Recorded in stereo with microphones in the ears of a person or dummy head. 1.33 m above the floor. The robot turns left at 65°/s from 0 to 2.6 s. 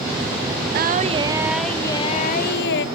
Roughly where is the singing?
Behind right.